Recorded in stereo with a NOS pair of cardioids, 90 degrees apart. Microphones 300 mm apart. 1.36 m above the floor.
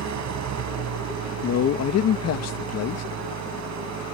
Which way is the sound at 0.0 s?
65° right.